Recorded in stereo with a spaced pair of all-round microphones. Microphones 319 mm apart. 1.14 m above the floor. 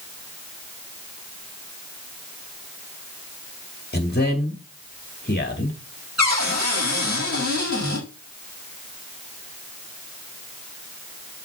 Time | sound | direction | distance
3.9 | a man speaking | 30° left (ahead or behind) | 2 m
6.2 | a cupboard door | 55° right (ahead or behind) | 6.5 m